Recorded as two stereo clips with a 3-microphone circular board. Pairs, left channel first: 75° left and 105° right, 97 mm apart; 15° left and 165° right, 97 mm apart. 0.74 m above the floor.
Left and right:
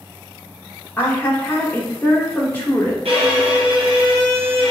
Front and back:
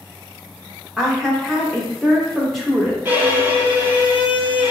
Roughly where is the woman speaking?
Left.